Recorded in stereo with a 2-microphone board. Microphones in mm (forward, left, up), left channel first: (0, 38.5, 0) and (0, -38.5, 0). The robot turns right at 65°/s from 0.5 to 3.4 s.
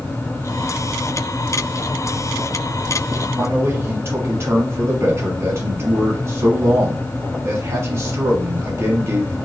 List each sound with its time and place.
3.4 s a man speaking: 35° right (ahead or behind), 1.3 m